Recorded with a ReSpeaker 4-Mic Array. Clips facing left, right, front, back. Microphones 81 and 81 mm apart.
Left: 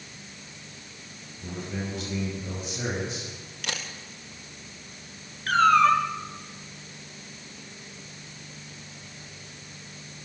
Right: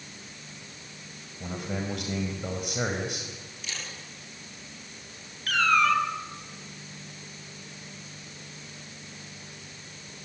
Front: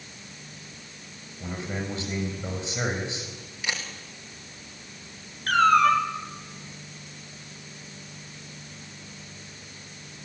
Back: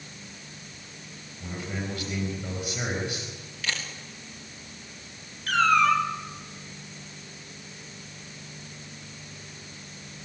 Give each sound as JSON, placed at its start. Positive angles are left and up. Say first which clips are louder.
{"t": 1.4, "sound": "a man speaking", "louder": "right 1 dB, front 2 dB", "azimuth_deg": -65, "distance_m": 4.5}
{"t": 3.6, "sound": "a camera shutter", "louder": "left 6 dB, front 1 dB", "azimuth_deg": 70, "distance_m": 3.5}
{"t": 5.5, "sound": "a cat meowing", "louder": "left 5 dB, front 2 dB", "azimuth_deg": 40, "distance_m": 2.5}